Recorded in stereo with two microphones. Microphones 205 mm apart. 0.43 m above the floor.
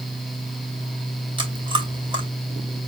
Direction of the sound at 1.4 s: 25° right (ahead or behind).